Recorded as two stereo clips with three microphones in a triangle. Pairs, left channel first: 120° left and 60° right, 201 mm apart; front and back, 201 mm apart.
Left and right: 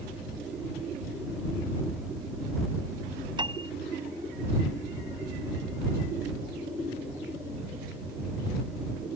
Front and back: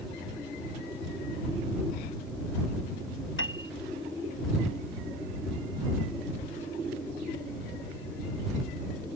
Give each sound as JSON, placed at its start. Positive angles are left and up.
{"t": 3.4, "sound": "a piano", "azimuth_deg": 5}